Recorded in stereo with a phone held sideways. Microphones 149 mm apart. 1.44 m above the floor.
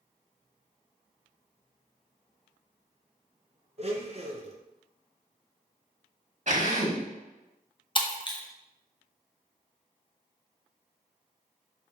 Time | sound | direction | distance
3.8 | a blender | 45° right (ahead or behind) | 0.7 m
6.5 | a drill | 50° right (ahead or behind) | 1.4 m
8.0 | breaking glass | 35° left (ahead or behind) | 0.7 m